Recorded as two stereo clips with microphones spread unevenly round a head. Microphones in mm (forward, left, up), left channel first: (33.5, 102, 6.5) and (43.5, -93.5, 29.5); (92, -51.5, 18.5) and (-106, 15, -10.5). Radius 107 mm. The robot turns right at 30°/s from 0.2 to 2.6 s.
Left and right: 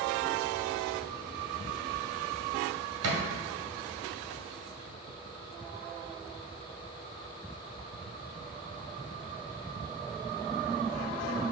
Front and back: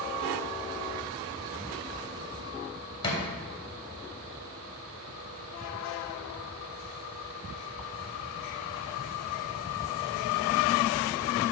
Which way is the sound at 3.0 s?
85° right.